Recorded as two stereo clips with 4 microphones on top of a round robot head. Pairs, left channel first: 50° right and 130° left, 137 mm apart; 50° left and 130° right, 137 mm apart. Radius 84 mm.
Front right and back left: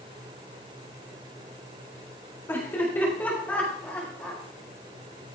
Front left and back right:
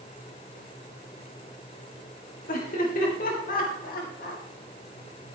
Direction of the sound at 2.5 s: 25° left.